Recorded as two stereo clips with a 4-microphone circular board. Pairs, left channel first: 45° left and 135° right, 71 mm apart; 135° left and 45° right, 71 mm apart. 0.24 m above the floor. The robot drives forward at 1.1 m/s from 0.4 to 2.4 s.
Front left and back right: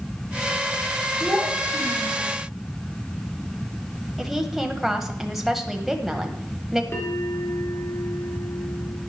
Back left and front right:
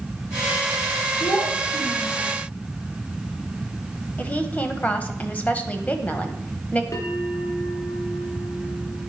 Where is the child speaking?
120° left, 2.5 m; by 2.4 s 140° left, 3 m.